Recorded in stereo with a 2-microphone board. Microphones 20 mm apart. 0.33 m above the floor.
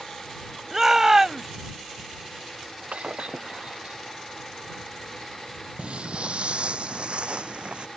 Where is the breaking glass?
65° right (ahead or behind).